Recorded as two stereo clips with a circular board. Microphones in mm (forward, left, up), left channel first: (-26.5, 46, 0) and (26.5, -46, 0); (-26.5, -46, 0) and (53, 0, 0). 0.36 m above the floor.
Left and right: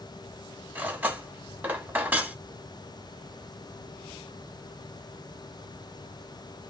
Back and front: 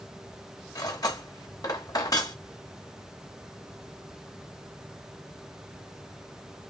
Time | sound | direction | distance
0.8 | cutlery clinking | 125° right | 0.8 m